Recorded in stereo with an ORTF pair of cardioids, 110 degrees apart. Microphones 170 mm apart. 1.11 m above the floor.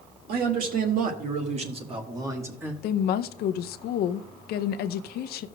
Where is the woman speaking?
70° left, 0.6 m.